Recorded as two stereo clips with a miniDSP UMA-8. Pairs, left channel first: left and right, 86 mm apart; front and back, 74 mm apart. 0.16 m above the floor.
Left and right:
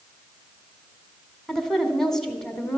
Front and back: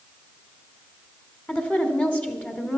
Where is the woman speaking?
15° left, 1.1 m.